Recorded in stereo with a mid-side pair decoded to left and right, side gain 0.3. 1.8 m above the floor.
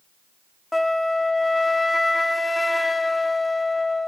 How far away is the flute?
About 0.8 m.